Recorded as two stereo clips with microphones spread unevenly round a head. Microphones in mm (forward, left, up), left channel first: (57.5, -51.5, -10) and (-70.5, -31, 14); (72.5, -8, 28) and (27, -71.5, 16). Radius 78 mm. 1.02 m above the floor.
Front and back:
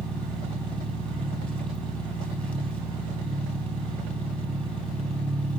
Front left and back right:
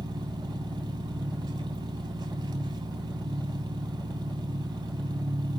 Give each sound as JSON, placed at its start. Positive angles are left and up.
{"t": 0.0, "sound": "an engine running", "azimuth_deg": -95, "distance_m": 3.0}